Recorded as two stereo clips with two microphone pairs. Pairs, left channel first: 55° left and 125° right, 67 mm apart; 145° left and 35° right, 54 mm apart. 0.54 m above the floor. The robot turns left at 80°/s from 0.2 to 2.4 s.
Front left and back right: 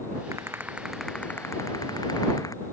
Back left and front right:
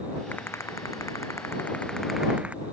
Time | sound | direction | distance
0.3 | a rattle | 160° right | ?